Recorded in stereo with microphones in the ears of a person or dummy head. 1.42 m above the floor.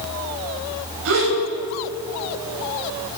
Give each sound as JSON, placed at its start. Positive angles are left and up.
{"t": 1.1, "sound": "a gasp", "side_deg": -80, "distance_m": 4.0}